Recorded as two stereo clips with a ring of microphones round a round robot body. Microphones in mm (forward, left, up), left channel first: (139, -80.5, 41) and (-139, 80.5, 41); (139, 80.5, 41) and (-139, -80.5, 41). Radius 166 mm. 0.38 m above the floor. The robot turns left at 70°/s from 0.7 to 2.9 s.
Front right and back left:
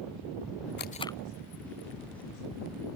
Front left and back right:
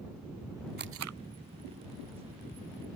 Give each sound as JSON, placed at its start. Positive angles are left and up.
{"t": 0.8, "sound": "tape being pulled", "azimuth_deg": -90}